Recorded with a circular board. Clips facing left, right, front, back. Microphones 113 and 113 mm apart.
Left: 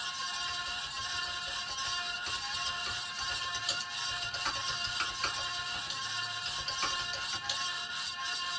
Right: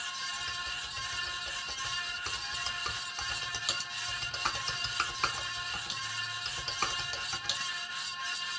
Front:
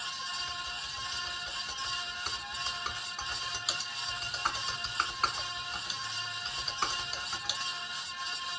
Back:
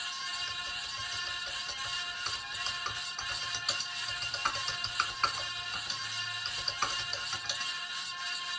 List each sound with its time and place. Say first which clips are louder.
0.3 s typing on a keyboard: left 1 dB, front 2 dB; 85° right, 0.7 m